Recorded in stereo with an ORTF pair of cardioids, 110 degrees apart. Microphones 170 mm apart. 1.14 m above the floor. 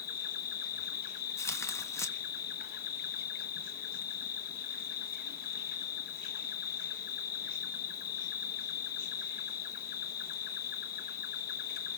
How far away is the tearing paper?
About 0.9 m.